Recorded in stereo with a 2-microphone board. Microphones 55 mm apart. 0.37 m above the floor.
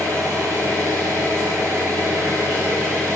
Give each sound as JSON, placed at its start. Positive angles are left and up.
{"t": 0.0, "sound": "an engine running", "side_deg": -55, "distance_m": 2.0}